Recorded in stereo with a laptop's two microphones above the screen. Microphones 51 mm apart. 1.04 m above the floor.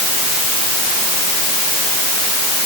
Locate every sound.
Only background noise.